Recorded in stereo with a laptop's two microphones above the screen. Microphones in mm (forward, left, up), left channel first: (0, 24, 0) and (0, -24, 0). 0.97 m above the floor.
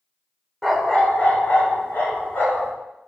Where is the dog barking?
Centre (ahead or behind), 1.0 m; by 2.7 s 50° left (ahead or behind), 3.5 m.